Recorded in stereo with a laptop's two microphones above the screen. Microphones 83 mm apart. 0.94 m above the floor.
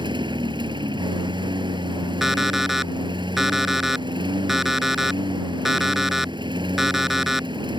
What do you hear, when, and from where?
0.0 s a lawn mower: 80° right
2.2 s an alarm clock: 5° right (ahead or behind)